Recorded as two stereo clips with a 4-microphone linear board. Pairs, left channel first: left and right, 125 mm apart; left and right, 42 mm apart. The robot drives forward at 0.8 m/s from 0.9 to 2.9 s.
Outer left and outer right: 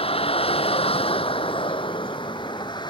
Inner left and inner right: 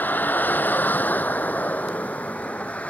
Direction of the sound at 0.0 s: 50° left (ahead or behind).